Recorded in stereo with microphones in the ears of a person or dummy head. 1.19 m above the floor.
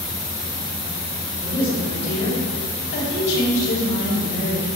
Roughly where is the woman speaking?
Left.